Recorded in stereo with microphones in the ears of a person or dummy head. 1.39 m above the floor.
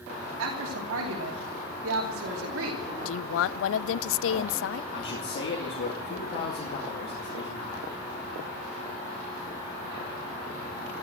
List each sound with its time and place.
0.4 s a woman speaking: 75° right (ahead or behind), 2.5 m
3.0 s a woman speaking: 80° left, 0.5 m
4.9 s a man speaking: 50° left (ahead or behind), 2 m